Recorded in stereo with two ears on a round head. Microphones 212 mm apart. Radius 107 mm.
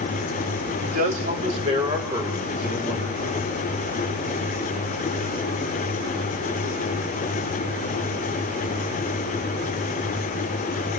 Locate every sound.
0.8 s a man speaking: 45° right (ahead or behind), 3 m; by 3.6 s centre (ahead or behind), 5.5 m